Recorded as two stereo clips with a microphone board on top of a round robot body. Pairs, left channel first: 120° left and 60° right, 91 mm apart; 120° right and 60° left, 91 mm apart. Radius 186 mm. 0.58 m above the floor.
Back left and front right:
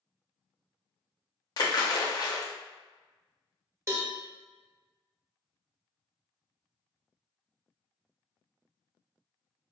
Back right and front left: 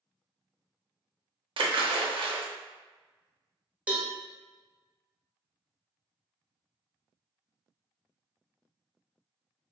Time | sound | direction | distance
1.6 | a splash | 80° left | 0.7 m
3.9 | a cowbell | 10° right | 1.0 m